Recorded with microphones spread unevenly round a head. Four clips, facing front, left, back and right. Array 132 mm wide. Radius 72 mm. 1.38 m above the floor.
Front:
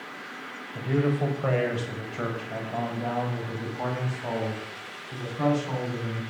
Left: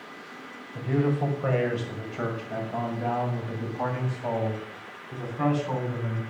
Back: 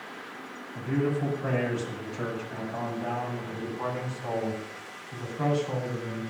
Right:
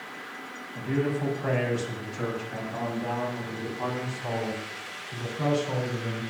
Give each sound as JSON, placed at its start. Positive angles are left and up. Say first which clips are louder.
{"t": 0.8, "sound": "a man speaking", "louder": "left 2 dB, front 2 dB", "azimuth_deg": 10, "distance_m": 6.0}